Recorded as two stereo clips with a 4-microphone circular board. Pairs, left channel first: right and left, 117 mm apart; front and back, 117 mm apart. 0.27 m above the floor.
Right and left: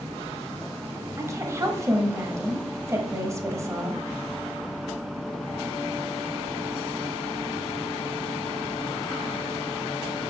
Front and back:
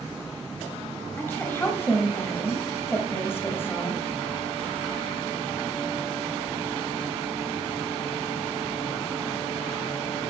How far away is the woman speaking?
About 1.2 m.